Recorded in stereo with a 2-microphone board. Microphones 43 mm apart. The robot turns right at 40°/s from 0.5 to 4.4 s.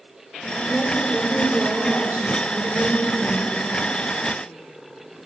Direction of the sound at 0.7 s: 175° left.